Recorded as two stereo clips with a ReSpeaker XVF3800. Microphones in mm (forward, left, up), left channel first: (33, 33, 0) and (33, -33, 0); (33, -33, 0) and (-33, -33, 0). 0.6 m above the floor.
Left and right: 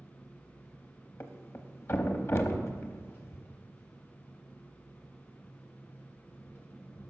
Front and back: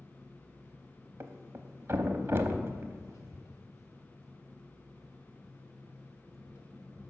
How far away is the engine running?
About 2 m.